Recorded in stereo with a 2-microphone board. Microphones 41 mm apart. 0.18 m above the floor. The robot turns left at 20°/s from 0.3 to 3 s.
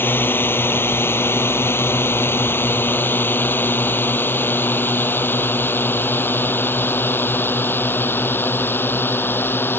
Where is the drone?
60° left (ahead or behind).